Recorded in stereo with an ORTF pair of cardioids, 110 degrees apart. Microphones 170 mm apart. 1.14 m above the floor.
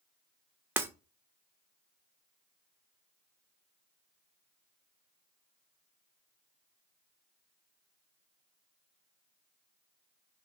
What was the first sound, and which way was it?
Breaking glass, 10° right.